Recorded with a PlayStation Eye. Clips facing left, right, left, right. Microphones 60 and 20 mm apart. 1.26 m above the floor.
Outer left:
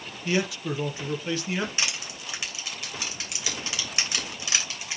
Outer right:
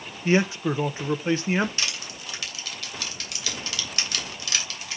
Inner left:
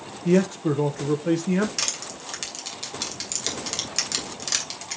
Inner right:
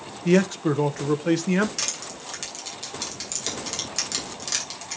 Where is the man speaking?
35° right (ahead or behind), 0.8 m.